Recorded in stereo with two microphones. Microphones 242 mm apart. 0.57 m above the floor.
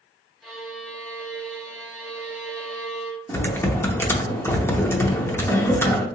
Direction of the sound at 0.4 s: Centre (ahead or behind).